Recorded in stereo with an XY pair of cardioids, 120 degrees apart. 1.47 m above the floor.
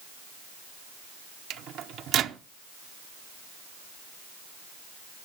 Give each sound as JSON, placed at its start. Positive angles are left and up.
{"t": 1.5, "sound": "a microwave", "azimuth_deg": -65, "distance_m": 0.7}